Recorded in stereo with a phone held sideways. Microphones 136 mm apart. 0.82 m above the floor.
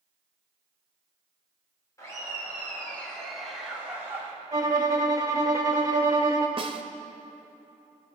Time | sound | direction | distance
2.0 | laughter | 25° left (ahead or behind) | 3 m
4.5 | a violin | 25° right (ahead or behind) | 1.3 m
6.6 | a snare drum | 40° right (ahead or behind) | 0.7 m